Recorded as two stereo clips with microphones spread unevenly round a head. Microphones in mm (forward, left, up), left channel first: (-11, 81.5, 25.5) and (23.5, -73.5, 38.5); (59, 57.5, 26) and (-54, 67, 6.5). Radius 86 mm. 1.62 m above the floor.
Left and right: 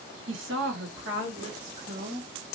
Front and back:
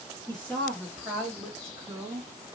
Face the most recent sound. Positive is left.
turn(degrees=-115)